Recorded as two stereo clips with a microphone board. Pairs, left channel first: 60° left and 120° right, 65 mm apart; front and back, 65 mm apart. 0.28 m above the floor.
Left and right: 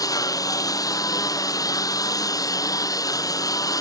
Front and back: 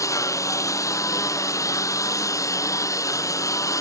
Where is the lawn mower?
35° left.